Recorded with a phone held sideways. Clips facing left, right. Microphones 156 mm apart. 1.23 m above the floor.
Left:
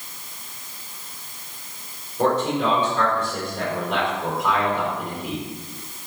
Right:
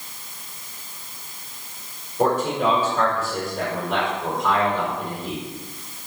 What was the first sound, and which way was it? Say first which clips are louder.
A man speaking: even; 15° right (ahead or behind).